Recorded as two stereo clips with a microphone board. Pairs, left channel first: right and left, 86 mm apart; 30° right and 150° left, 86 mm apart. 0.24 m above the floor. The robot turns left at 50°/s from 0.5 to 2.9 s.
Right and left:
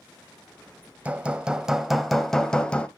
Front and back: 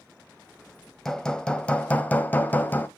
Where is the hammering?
50° left, 0.8 m; by 2.9 s 45° right, 0.8 m.